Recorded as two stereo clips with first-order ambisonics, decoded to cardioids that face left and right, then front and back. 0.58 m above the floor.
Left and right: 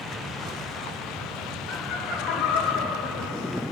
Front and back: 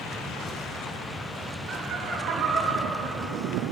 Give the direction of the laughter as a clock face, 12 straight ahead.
8 o'clock.